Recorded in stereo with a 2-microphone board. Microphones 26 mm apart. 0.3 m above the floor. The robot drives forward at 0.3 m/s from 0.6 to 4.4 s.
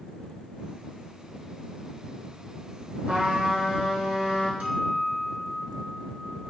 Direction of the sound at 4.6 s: 80° right.